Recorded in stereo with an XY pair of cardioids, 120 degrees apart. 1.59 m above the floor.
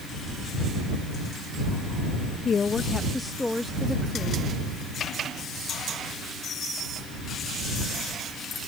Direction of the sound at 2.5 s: 40° left.